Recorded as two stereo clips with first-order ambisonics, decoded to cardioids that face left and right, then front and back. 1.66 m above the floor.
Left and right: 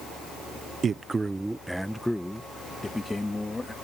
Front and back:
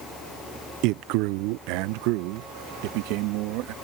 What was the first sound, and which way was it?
A man speaking, 155° right.